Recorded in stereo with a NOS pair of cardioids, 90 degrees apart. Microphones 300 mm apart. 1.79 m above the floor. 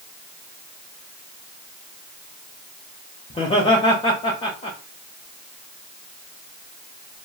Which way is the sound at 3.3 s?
20° left.